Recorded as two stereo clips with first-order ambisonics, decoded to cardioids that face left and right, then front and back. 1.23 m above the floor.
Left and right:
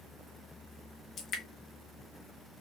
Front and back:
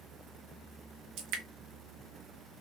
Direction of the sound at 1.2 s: 145° left.